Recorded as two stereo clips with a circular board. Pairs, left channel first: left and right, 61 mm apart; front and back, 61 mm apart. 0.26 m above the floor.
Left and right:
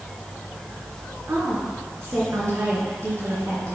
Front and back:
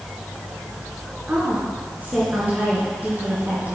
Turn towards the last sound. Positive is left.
turn(degrees=-125)